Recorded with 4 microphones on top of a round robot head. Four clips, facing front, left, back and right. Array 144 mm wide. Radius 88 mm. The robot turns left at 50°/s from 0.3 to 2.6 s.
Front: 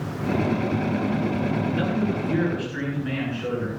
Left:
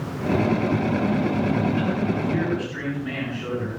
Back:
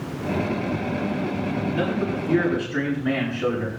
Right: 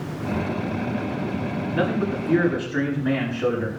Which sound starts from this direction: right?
A man speaking, at 1.7 s.